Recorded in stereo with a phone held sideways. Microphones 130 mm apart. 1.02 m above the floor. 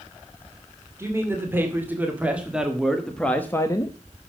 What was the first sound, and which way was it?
A man speaking, 20° right (ahead or behind).